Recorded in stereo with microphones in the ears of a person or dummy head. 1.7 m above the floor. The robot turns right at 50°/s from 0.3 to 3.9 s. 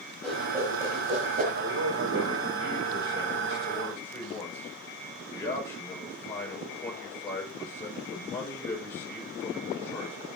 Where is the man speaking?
100° right, 6 m; by 10.3 s 20° left, 6 m.